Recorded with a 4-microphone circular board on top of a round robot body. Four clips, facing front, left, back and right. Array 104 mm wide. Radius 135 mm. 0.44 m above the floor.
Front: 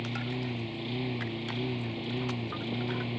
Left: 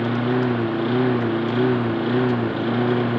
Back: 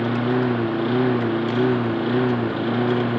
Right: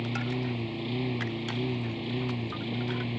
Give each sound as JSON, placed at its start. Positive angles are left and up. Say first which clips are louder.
{"t": 0.0, "sound": "a lawn mower", "louder": "left 12 dB, back 15 dB", "azimuth_deg": 140}